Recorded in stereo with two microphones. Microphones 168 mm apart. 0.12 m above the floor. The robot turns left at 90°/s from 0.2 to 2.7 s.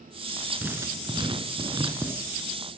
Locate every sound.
0.6 s writing: 20° right, 1.4 m; by 2.1 s 155° right, 1.4 m